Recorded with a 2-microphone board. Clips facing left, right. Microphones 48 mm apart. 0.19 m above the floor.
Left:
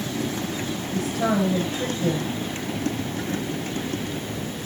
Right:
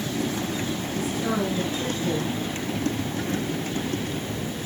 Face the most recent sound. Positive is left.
turn(degrees=75)  # may be behind; listen again after turning